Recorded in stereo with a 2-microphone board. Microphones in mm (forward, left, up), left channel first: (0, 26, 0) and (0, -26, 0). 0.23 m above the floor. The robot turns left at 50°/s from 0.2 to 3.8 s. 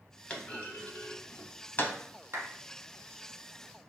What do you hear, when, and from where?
0.3 s a clunk: 20° left (ahead or behind), 0.5 m; by 1.9 s 35° left (ahead or behind), 0.5 m
2.3 s a clap: 55° right (ahead or behind), 1.3 m